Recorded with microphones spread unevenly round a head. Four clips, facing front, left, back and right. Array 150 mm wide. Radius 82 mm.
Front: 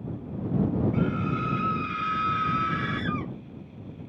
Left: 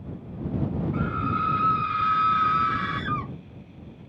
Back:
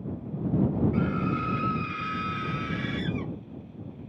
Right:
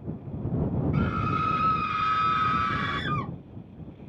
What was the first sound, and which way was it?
A scream, 100° right.